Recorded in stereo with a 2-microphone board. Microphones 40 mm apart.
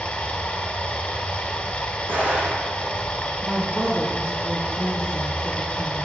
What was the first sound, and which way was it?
Running water, 30° left (ahead or behind).